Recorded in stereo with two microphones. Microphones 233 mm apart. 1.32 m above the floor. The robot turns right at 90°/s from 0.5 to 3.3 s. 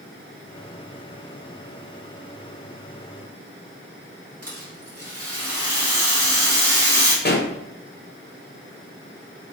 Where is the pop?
45° left (ahead or behind), 0.8 m.